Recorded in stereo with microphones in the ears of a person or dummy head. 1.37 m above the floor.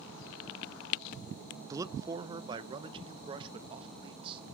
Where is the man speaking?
20° right (ahead or behind), 0.8 m; by 4.4 s 30° right (ahead or behind), 2.5 m.